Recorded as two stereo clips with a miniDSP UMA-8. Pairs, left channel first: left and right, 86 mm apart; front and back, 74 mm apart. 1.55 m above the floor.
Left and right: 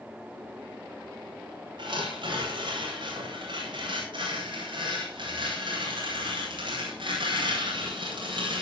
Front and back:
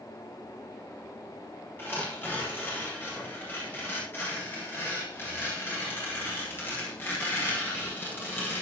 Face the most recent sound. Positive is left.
turn(degrees=-65)